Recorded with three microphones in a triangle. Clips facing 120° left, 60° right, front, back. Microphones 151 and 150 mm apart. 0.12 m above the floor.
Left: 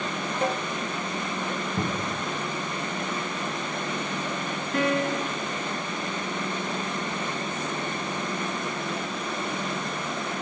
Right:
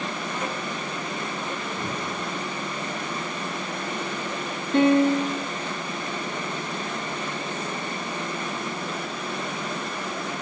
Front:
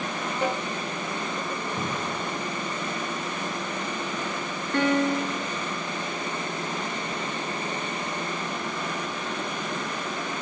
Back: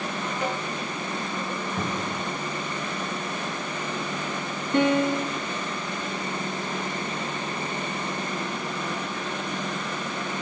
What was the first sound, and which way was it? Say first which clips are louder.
A snare drum: left 7 dB, front 3 dB; 60° left.